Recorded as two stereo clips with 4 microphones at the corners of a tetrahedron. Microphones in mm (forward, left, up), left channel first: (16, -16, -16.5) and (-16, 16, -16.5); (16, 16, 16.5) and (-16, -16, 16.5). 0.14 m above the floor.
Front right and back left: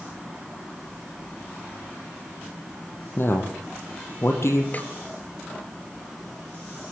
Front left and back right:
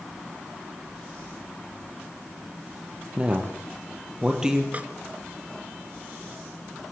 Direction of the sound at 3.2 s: 75° right.